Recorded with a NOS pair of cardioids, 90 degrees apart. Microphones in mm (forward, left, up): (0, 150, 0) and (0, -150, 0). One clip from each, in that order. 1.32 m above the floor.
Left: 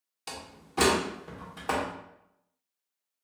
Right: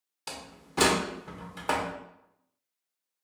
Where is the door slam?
10° right, 0.8 m.